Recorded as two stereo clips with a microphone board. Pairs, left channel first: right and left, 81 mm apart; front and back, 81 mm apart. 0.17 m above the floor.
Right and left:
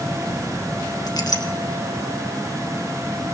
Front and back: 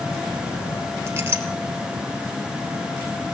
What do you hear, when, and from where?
1.1 s a clink: 120° right, 2 m